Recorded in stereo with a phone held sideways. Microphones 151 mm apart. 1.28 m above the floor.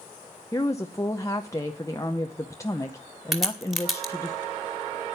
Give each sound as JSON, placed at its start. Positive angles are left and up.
{"t": 0.5, "sound": "a woman speaking", "side_deg": 20, "distance_m": 0.8}
{"t": 3.3, "sound": "a crack", "side_deg": 0, "distance_m": 2.5}